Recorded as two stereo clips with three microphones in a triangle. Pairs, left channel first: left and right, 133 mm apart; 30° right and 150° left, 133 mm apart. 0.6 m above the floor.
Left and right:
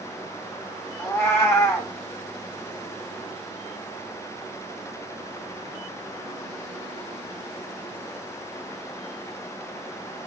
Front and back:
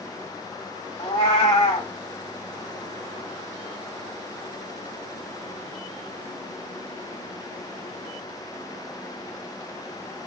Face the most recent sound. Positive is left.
turn(degrees=20)